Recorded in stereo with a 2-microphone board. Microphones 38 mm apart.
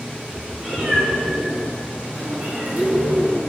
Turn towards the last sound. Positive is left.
turn(degrees=-50)  # may be behind; listen again after turning